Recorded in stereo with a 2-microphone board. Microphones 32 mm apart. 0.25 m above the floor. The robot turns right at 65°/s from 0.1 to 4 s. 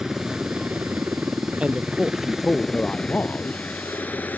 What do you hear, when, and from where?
0.0 s a helicopter: 15° right (ahead or behind); by 4.4 s 70° left (ahead or behind)
1.6 s a man speaking: 40° right; by 3.6 s 90° left